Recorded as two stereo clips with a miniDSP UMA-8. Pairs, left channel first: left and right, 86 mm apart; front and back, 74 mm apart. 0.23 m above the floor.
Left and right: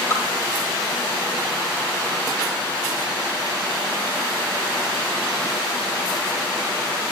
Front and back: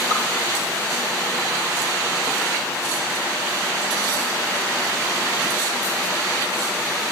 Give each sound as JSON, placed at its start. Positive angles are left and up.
{"t": 0.1, "sound": "dripping", "azimuth_deg": -145, "distance_m": 3.0}